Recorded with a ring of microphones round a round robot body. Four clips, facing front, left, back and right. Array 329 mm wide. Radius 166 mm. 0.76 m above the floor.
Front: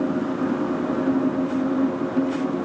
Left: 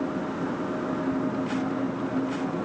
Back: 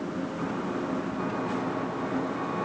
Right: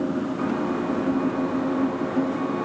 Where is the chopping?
No chopping in this recording.